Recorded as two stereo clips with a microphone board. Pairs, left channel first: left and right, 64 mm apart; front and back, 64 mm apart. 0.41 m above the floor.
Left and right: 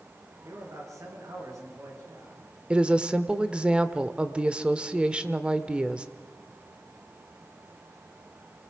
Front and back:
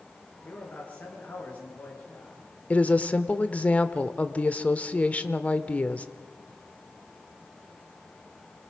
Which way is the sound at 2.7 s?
35° right.